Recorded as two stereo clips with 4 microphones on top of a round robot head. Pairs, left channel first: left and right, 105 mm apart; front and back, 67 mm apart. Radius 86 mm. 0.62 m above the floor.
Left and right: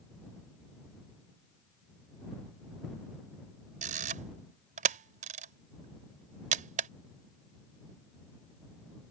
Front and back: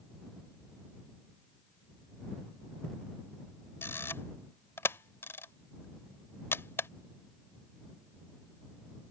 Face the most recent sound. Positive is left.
turn(degrees=-70)